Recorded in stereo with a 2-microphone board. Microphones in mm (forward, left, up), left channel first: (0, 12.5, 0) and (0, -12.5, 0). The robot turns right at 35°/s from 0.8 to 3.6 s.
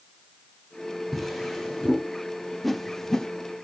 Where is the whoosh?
5° left (ahead or behind), 0.5 m; by 3.3 s 25° left (ahead or behind), 0.5 m.